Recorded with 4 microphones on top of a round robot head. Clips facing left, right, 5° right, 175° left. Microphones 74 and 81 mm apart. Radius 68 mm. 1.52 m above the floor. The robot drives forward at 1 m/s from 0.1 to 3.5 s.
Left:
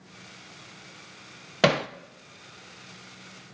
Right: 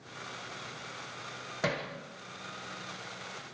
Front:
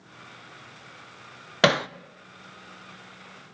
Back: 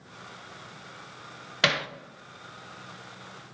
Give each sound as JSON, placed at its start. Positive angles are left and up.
{"t": 1.6, "sound": "hammering", "azimuth_deg": 45, "distance_m": 0.7}